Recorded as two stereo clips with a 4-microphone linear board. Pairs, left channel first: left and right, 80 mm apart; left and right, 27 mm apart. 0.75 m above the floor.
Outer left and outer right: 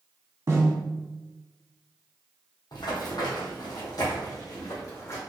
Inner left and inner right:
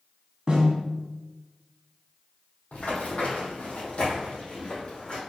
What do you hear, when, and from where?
0.5 s a snare drum: 40° right (ahead or behind), 1.1 m
2.7 s running footsteps: 65° left (ahead or behind), 1.8 m; by 5.2 s 40° left (ahead or behind), 2.5 m